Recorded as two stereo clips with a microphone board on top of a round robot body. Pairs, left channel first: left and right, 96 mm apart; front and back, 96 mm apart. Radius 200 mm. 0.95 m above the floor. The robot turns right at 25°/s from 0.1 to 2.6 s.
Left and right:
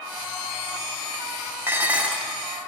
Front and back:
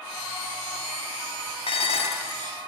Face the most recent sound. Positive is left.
turn(degrees=0)